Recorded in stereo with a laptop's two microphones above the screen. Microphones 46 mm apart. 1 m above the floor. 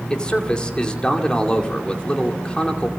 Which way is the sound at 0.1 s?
20° left (ahead or behind).